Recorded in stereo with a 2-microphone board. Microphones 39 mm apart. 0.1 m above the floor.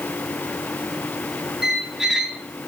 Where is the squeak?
15° right (ahead or behind), 0.6 m.